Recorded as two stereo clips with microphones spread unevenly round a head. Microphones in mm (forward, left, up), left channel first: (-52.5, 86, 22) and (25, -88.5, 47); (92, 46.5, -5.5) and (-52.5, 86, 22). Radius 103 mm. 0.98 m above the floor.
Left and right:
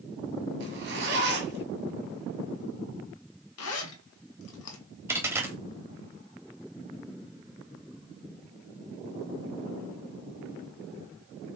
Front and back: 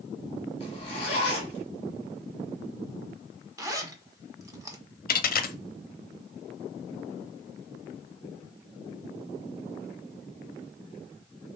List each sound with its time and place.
0.6 s a zipper: 80° right, 1.4 m
3.6 s a zipper: 105° left, 1.4 m
5.1 s a dropped coin: 10° left, 0.7 m